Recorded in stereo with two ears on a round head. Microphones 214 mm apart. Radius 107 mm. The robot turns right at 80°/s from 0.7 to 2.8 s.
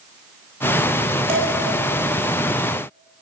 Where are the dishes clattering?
25° right (ahead or behind), 7.5 m; by 1.5 s 10° right (ahead or behind), 7.5 m.